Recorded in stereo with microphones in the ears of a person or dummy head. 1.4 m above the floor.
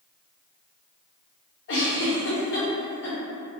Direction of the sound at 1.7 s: 60° left (ahead or behind).